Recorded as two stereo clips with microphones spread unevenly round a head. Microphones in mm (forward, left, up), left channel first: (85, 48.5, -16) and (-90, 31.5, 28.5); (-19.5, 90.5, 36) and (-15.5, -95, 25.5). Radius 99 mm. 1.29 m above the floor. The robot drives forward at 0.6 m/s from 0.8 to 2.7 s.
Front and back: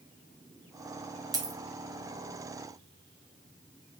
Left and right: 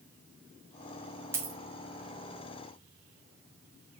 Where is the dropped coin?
160° right, 0.6 m; by 1.6 s 165° right, 0.7 m.